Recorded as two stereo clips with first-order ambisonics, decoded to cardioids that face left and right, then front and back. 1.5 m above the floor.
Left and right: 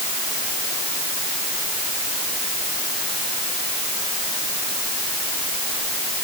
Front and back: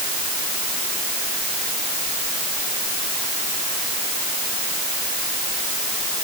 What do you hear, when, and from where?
Only background noise.